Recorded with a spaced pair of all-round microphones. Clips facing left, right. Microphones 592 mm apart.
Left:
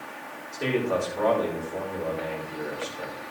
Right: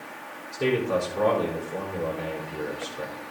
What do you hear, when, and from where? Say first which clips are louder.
0.5 s a man speaking: right 2 dB; 60° right (ahead or behind), 4 m